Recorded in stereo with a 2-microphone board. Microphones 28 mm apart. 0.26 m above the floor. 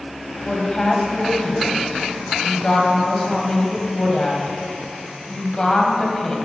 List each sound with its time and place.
0.5 s a woman speaking: 30° left (ahead or behind), 1.4 m